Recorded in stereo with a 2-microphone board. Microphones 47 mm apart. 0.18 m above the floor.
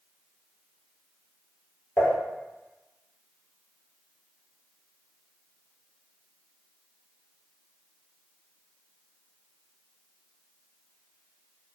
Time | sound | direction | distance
2.0 | dishes clattering | 50° left (ahead or behind) | 1.5 m